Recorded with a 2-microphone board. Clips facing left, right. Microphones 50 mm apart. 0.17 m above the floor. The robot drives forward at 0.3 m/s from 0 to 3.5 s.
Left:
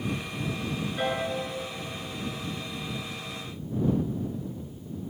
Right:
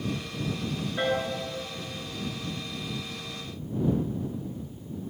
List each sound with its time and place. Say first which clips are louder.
1.0 s a piano: right 2 dB; 20° right (ahead or behind), 1.7 m